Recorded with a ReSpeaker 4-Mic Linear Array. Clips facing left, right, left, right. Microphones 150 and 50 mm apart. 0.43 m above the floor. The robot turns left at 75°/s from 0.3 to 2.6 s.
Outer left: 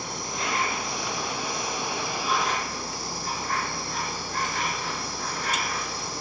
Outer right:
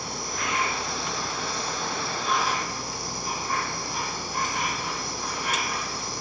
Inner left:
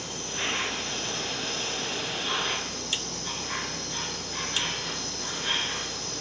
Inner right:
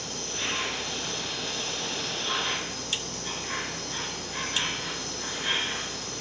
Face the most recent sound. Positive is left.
turn(degrees=-15)